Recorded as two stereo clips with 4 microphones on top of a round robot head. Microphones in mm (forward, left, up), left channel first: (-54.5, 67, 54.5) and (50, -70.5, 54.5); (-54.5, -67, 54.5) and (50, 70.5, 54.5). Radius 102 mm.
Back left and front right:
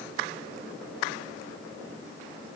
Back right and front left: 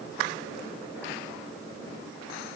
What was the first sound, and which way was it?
Only background noise.